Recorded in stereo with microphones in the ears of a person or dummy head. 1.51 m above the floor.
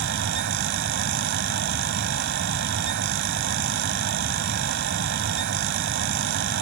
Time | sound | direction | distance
0.0 | a fan | 65° right (ahead or behind) | ?